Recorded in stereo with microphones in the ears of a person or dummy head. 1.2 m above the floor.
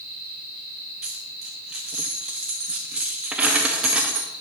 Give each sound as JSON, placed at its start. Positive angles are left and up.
{"t": 1.0, "sound": "a dropped coin", "side_deg": -10, "distance_m": 0.5}